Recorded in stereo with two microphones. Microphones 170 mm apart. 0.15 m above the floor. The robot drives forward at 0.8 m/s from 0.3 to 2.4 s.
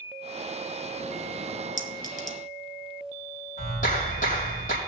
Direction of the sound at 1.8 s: 55° left (ahead or behind).